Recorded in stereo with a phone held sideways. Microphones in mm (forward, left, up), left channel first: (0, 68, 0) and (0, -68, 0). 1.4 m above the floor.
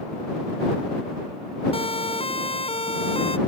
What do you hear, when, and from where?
1.7 s a siren: 45° left (ahead or behind)